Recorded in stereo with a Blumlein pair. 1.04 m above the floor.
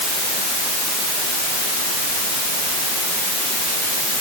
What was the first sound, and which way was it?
Only background noise.